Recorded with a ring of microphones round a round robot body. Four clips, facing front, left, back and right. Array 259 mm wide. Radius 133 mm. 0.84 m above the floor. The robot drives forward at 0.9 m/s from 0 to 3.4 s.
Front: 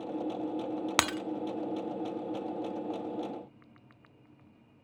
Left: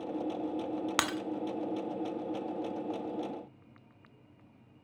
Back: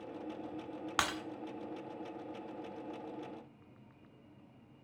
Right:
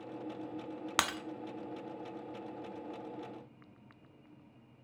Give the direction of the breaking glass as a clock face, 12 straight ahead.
12 o'clock.